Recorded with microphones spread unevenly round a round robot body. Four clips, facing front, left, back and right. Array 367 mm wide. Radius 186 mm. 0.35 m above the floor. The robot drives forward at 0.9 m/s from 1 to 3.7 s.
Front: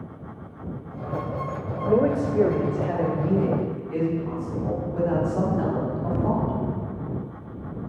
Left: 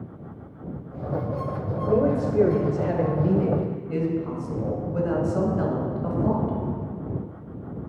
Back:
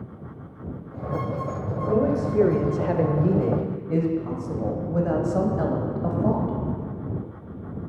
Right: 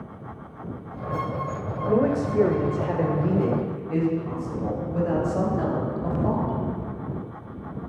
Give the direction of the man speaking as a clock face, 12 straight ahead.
11 o'clock.